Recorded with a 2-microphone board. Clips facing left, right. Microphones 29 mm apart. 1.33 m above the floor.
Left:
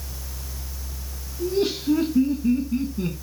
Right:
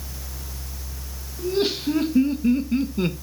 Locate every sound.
1.4 s laughter: 65° right (ahead or behind), 2 m; by 3.1 s 70° right (ahead or behind), 0.8 m